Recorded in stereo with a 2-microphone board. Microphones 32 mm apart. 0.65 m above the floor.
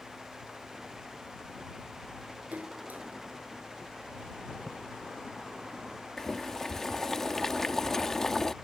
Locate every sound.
2.5 s a splash: 65° right (ahead or behind)
4.7 s a splash: 25° right (ahead or behind)
6.2 s boiling: 15° left (ahead or behind)